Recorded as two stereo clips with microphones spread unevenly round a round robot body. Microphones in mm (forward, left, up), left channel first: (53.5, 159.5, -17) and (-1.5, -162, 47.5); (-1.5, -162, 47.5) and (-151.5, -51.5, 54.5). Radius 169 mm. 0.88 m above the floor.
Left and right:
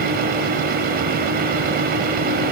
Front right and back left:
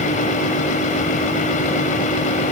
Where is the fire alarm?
I don't hear a fire alarm.